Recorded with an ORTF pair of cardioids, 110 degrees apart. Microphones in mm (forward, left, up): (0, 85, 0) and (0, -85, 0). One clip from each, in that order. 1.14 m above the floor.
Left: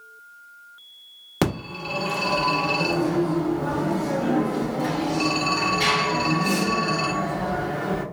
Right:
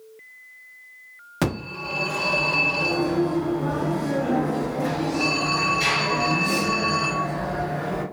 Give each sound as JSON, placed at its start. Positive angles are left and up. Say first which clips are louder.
{"t": 1.4, "sound": "a phone ringing", "louder": "left 1 dB", "azimuth_deg": 30, "distance_m": 1.3}